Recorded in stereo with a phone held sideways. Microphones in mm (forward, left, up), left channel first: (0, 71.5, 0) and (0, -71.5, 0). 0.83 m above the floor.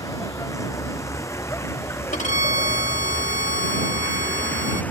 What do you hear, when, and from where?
0.0 s a vehicle: 20° left (ahead or behind); by 4.9 s 10° left (ahead or behind)
2.1 s a violin: 60° left (ahead or behind)